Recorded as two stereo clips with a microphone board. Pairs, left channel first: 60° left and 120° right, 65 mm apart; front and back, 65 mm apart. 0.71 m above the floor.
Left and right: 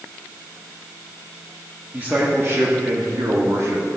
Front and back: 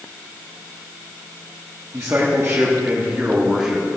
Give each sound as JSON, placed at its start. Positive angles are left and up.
{"t": 1.9, "sound": "a man speaking", "azimuth_deg": -170, "distance_m": 1.4}